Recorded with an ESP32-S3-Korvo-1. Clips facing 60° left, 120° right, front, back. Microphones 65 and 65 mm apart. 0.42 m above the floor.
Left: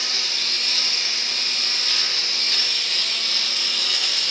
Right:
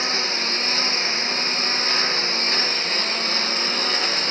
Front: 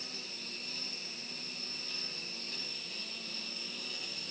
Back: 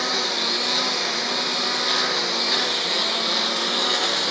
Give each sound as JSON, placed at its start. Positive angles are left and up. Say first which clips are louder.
{"t": 0.0, "sound": "a lawn mower", "louder": "right 6 dB, back 23 dB", "azimuth_deg": 180}